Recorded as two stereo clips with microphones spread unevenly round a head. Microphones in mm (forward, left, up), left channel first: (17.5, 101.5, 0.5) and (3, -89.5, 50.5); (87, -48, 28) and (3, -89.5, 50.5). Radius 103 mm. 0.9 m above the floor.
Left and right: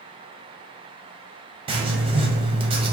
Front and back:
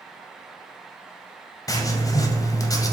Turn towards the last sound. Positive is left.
turn(degrees=-30)